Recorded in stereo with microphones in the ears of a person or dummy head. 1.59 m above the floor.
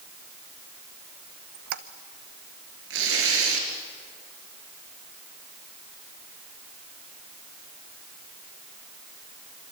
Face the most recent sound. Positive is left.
turn(degrees=-70)  # may be behind; listen again after turning